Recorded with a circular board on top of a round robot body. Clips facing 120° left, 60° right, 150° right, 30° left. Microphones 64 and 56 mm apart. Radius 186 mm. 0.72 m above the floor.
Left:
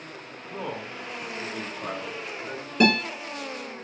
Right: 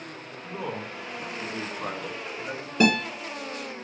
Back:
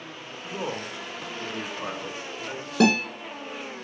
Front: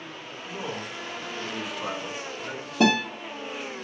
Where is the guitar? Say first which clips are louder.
Left 1 dB, back 1 dB; 145° right, 1.5 m.